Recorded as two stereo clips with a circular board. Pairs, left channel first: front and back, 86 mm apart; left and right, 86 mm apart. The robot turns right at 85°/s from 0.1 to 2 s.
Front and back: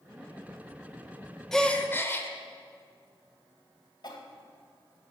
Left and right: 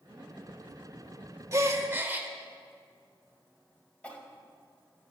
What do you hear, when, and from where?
1.5 s a gasp: 85° right, 0.8 m; by 2.3 s 40° right, 0.8 m
4.0 s a cough: 15° left, 1.9 m